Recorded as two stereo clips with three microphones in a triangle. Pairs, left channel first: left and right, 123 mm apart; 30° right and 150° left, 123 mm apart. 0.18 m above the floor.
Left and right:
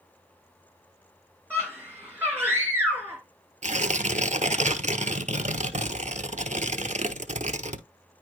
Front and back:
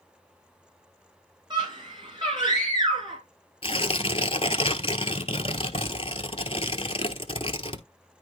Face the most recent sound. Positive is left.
turn(degrees=-75)